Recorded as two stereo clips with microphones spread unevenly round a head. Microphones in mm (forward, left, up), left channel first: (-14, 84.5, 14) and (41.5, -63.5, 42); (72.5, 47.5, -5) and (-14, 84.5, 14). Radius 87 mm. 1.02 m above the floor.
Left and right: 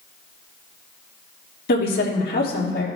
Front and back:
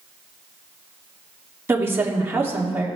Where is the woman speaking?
90° left, 2.5 m.